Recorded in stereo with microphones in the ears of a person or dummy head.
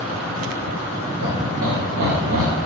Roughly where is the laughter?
Right.